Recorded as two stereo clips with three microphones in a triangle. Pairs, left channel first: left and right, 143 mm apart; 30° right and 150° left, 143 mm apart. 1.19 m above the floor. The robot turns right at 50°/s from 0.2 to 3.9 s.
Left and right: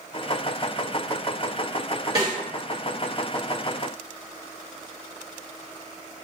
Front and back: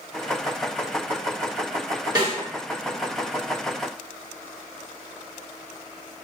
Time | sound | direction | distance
2.1 | a snare drum | 150° right | 1.5 m